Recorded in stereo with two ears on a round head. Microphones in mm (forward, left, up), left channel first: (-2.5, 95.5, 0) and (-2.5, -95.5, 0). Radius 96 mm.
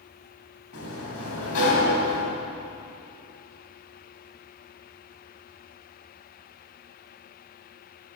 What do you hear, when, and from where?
0.7 s a sliding door: 75° left (ahead or behind), 3 m